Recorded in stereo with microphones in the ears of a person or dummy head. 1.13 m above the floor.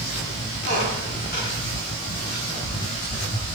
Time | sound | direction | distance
0.7 | a squeak | 50° left (ahead or behind) | 3 m